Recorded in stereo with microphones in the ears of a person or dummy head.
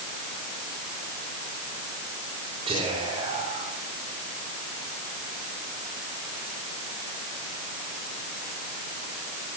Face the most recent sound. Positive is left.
turn(degrees=-25)  # may be behind; listen again after turning